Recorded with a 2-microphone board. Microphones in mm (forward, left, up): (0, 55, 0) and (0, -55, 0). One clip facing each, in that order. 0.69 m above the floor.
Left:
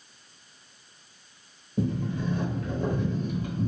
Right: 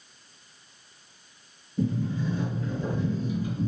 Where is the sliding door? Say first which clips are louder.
Right 1 dB; 60° left (ahead or behind), 0.6 m.